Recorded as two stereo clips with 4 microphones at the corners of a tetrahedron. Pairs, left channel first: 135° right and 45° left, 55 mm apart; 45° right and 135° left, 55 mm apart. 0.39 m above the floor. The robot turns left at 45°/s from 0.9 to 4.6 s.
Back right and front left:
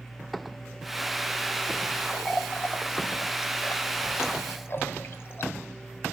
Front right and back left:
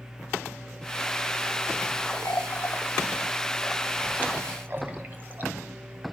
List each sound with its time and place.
2.2 s a running tap: 70° right, 1.7 m; by 5.5 s 175° right, 1.7 m